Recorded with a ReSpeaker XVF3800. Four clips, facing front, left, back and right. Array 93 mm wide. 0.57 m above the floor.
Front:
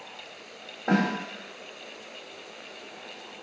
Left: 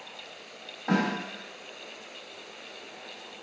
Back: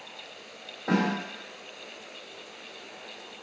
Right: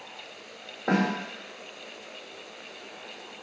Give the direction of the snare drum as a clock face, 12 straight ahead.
3 o'clock.